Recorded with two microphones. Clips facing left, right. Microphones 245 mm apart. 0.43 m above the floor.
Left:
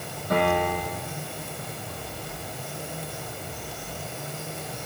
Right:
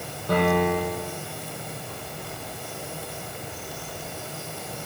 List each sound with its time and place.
0.3 s a piano: 75° right (ahead or behind), 9.5 m